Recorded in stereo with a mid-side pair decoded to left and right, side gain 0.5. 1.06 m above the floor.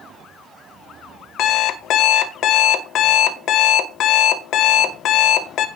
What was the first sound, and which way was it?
An alarm clock, 65° left.